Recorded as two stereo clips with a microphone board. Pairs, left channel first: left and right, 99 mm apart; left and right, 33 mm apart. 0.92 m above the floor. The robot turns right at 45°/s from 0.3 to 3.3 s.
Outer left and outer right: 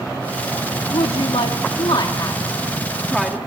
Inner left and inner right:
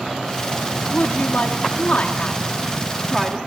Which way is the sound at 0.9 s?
70° left (ahead or behind).